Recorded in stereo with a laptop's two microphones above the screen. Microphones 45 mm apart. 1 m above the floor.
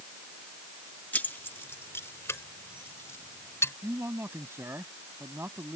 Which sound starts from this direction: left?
Keys jangling, at 1.1 s.